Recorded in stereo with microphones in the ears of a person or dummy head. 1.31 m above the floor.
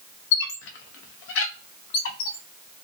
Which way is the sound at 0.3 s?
65° left (ahead or behind).